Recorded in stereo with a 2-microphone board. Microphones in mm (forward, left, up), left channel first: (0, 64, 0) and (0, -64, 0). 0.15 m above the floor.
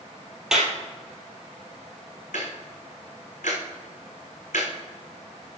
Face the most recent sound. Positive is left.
turn(degrees=80)